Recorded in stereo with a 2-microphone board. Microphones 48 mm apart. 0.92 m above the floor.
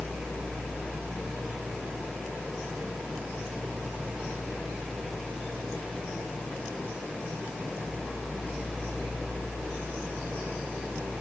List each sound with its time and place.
Only background noise.